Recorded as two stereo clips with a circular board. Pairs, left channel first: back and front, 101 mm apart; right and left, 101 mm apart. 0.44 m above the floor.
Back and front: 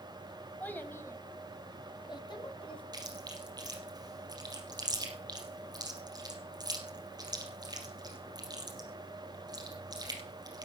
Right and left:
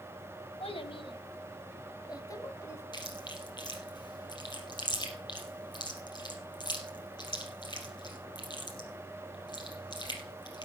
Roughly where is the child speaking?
Right.